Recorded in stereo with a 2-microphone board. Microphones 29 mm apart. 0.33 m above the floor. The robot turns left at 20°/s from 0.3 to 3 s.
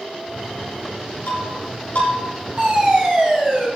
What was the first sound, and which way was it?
Breaking glass, 75° left (ahead or behind).